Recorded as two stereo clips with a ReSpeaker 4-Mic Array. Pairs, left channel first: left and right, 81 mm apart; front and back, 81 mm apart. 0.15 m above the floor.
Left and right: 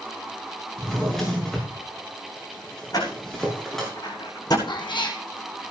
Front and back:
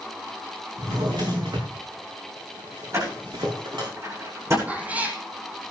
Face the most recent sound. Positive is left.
turn(degrees=105)